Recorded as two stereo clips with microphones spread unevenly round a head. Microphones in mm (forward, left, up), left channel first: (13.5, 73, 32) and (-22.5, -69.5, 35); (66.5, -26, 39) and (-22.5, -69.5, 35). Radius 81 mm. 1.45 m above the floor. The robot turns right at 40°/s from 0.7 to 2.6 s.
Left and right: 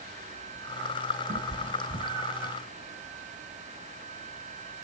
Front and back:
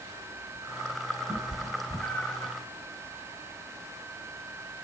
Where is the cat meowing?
80° right, 2 m; by 2.5 s 30° right, 2 m.